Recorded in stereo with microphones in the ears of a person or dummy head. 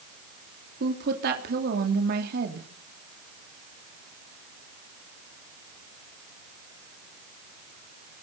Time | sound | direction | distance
0.8 | a woman speaking | 55° right (ahead or behind) | 3 m